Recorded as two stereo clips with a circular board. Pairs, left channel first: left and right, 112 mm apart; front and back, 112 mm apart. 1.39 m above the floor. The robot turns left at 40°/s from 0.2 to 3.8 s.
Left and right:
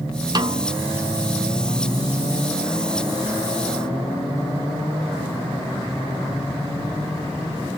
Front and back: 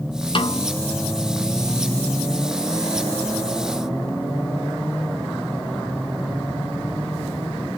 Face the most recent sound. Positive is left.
turn(degrees=-175)